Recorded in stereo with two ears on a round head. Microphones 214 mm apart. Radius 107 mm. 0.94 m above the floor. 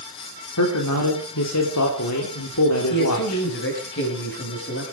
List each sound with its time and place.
0.6 s a man speaking: 75° left (ahead or behind), 3 m
2.9 s a man speaking: 55° left (ahead or behind), 6 m